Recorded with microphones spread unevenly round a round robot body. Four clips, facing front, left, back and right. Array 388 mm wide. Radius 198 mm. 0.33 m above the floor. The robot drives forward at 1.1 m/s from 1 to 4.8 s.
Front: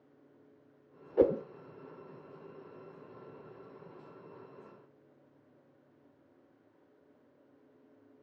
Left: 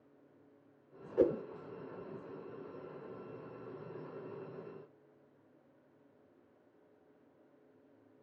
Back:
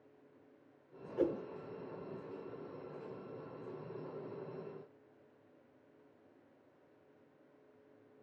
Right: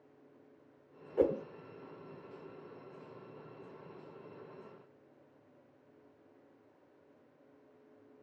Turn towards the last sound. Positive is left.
turn(degrees=-175)